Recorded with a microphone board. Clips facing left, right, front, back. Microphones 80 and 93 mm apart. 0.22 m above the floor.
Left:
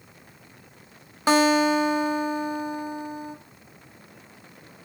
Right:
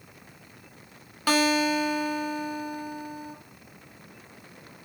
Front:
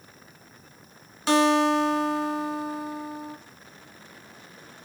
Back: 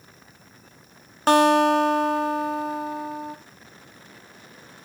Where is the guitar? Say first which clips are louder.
Left 4 dB, back 4 dB; 150° left, 0.5 m.